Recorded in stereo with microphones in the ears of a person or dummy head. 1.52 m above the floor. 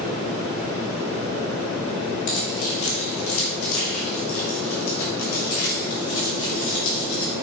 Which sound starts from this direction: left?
Keys jangling, at 2.3 s.